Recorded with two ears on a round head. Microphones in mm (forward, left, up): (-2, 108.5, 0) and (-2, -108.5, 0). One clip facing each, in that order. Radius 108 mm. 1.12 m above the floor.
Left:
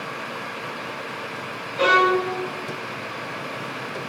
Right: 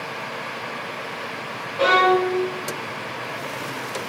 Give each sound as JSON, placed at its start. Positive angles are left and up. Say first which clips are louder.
{"t": 1.8, "sound": "a violin", "louder": "right 2 dB", "side_deg": 25, "distance_m": 3.0}